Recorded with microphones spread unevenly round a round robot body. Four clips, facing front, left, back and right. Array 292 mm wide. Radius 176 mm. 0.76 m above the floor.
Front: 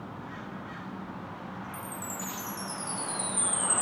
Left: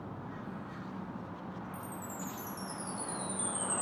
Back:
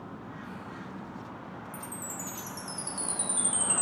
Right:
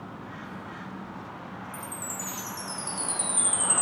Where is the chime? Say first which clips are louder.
Right 4 dB, front 2 dB; 150° right, 2 m.